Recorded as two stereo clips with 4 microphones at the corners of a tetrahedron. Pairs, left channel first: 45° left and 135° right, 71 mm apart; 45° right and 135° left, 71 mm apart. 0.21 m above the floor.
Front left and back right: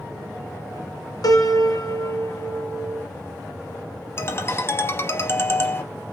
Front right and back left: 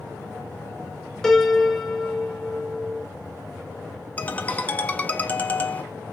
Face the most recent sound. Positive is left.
turn(degrees=10)